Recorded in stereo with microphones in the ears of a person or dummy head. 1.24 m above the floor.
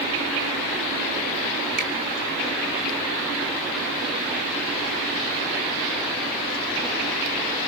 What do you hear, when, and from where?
1.8 s a finger snap: 60° right (ahead or behind), 5 m